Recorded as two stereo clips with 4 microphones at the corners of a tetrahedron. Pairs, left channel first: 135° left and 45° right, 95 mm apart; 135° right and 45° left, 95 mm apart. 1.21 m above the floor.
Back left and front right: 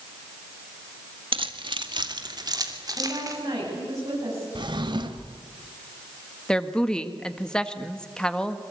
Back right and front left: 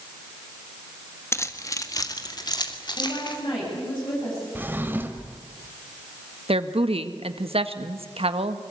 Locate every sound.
1.3 s keys jangling: 70° right, 1.5 m; by 3.4 s 95° right, 3 m
3.0 s a woman speaking: 95° right, 9.5 m
4.5 s a drawer: 20° right, 1.7 m
6.5 s a woman speaking: 55° left, 1.5 m